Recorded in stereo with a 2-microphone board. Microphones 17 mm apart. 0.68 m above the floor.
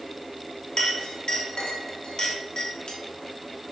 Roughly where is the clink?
Left.